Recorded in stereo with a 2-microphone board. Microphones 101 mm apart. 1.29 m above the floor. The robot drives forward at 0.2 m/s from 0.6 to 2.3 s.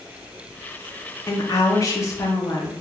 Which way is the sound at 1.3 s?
40° left (ahead or behind).